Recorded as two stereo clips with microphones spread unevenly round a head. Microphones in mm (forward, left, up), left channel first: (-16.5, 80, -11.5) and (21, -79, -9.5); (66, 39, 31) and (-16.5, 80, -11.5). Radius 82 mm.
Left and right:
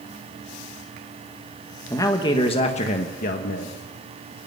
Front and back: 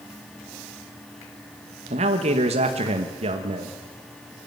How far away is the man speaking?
About 1.4 m.